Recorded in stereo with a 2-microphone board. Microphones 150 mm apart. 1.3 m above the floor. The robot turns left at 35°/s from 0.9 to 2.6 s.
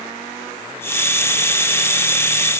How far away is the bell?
I don't hear a bell.